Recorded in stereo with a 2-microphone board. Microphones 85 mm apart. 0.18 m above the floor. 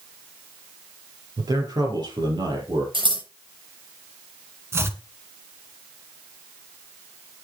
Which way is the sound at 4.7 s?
30° right (ahead or behind).